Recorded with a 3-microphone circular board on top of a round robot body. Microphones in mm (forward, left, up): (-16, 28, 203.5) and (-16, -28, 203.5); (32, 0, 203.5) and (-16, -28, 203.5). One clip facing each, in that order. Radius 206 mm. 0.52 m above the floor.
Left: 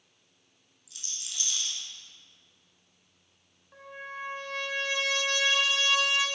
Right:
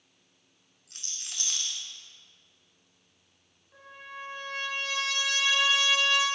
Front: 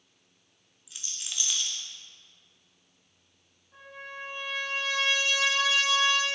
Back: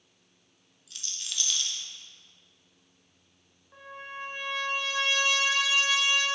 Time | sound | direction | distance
0.9 | a rattle | 45° right | 0.9 m
3.7 | a trumpet | 150° left | 1.8 m